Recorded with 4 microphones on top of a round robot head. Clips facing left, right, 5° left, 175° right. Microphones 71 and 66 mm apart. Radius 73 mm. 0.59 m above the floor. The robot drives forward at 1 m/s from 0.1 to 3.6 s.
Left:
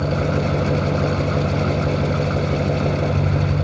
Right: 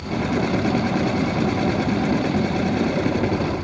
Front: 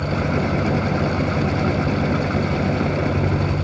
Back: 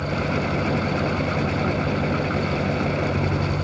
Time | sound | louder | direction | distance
0.0 | an engine running | left 2 dB, front 3 dB | 90° left | ?